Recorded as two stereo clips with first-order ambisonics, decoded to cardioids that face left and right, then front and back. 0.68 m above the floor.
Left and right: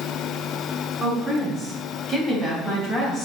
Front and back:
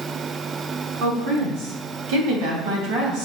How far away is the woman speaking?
About 5 m.